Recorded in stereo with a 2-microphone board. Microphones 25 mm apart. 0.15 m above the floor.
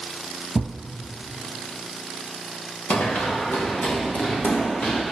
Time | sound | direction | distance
0.6 | a thud | 35° right (ahead or behind) | 1.4 m
2.9 | running footsteps | 80° left | 2.5 m